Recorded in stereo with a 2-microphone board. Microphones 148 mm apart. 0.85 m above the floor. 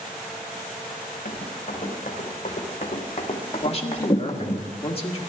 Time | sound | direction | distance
1.2 | running footsteps | 55° left (ahead or behind) | 4.5 m
3.6 | a man speaking | 40° left (ahead or behind) | 1.5 m